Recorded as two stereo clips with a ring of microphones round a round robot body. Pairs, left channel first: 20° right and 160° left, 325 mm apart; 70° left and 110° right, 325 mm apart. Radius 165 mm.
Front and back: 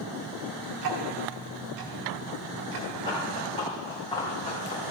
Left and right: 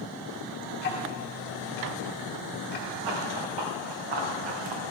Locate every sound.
0.8 s ticking: 130° left, 1.6 m
3.0 s running footsteps: 100° right, 4 m; by 4.8 s 95° right, 2.5 m